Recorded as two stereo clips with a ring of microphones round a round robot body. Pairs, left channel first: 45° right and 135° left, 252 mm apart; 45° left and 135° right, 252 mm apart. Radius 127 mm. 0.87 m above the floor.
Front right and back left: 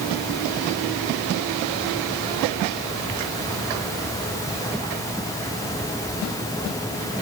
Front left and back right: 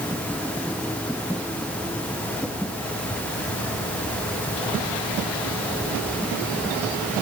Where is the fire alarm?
I don't hear a fire alarm.